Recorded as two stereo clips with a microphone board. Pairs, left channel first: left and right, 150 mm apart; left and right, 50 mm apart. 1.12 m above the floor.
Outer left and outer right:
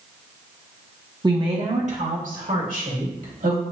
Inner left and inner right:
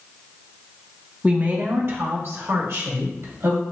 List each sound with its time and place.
1.2 s a woman speaking: 25° right (ahead or behind), 0.8 m; by 3.6 s 75° right (ahead or behind), 2.5 m